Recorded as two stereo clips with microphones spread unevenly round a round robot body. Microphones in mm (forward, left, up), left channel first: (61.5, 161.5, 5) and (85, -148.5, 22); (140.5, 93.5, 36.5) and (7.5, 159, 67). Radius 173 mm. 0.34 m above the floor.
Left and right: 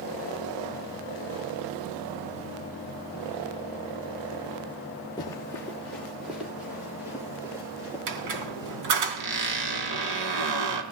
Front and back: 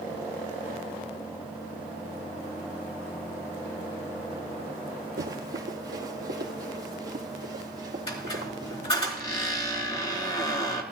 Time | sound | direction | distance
5.2 | running footsteps | 175° left | 1.4 m
8.1 | a squeak | 85° right | 2.5 m